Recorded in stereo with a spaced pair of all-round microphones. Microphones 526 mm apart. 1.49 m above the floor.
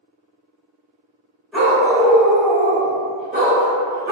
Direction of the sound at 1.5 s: Centre (ahead or behind).